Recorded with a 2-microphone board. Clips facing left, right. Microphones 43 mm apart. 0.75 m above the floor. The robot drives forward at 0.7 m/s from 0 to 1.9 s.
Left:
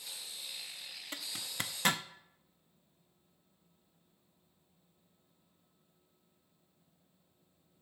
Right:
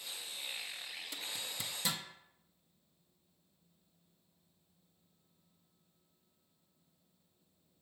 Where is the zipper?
40° left (ahead or behind), 0.6 m; by 2.0 s 55° left (ahead or behind), 0.5 m.